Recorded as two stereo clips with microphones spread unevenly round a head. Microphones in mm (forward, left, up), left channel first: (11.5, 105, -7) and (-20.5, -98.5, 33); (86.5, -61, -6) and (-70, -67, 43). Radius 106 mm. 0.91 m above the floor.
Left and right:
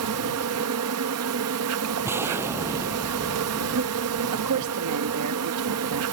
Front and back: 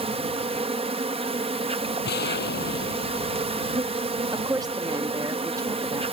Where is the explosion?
20° right.